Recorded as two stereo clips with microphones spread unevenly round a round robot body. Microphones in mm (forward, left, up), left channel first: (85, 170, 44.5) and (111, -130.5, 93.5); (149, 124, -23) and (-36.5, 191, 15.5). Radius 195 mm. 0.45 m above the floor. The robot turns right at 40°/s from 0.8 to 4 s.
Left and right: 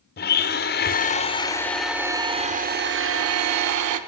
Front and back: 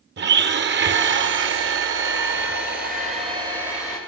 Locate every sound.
0.2 s a blender: 135° left, 1.0 m; by 4.0 s 95° right, 1.0 m